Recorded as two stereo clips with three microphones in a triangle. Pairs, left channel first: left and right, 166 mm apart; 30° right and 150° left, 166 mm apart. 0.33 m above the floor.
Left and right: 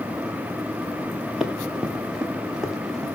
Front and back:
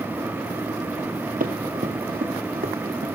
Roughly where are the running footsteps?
Behind.